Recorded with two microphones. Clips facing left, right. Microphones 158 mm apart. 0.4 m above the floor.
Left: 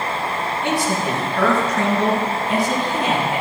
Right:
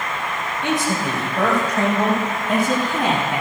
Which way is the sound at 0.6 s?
20° right (ahead or behind).